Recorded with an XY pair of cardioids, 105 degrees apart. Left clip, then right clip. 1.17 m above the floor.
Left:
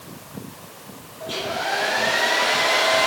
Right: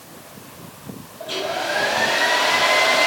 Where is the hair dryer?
60° right, 2.5 m.